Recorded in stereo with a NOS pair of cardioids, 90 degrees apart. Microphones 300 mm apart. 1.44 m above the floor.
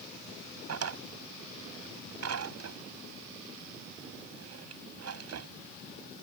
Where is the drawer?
55° right.